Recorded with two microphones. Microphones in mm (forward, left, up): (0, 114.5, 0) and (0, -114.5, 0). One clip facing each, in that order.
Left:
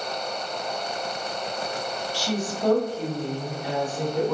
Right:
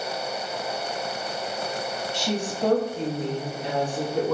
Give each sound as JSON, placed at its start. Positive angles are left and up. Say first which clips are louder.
{"t": 2.1, "sound": "a woman speaking", "louder": "right 1 dB", "side_deg": -20, "distance_m": 1.2}